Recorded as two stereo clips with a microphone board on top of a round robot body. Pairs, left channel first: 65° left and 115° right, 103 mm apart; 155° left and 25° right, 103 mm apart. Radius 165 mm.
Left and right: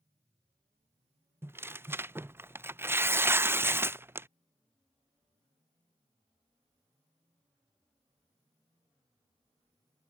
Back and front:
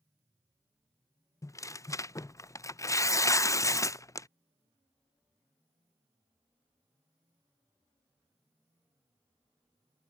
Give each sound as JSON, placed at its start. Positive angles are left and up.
{"t": 1.4, "sound": "tearing paper", "azimuth_deg": -165}